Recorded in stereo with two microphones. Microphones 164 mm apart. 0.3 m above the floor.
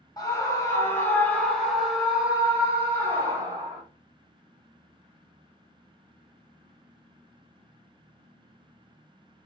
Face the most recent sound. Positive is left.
turn(degrees=-25)  # may be behind; listen again after turning